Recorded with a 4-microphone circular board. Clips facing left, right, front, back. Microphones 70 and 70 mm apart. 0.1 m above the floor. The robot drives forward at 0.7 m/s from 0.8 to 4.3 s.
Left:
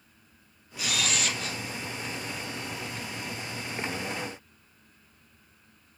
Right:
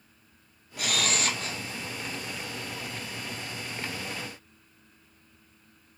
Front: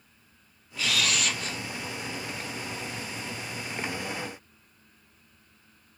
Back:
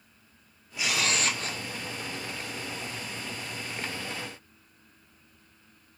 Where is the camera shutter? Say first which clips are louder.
Right 1 dB, even; 110° right, 0.7 m; by 1.6 s 140° right, 1.0 m.